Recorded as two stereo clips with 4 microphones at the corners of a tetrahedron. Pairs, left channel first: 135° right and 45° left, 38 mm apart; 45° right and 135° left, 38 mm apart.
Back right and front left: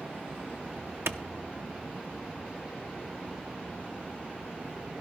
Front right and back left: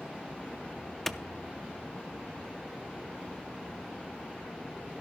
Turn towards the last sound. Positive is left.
turn(degrees=40)